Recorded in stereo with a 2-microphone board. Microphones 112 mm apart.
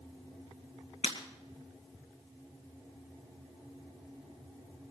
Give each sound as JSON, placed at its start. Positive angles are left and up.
{"t": 1.0, "sound": "breaking glass", "side_deg": 75, "distance_m": 2.5}